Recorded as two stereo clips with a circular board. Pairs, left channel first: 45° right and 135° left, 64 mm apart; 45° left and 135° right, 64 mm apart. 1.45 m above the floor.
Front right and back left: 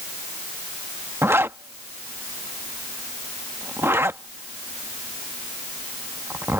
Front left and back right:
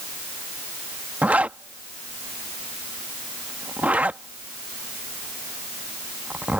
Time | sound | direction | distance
1.2 | a zipper | 165° left | ?